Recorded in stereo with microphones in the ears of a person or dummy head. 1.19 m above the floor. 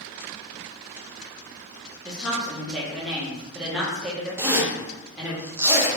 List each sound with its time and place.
2.0 s a woman speaking: centre (ahead or behind), 0.9 m
4.4 s a zipper: 10° right (ahead or behind), 0.5 m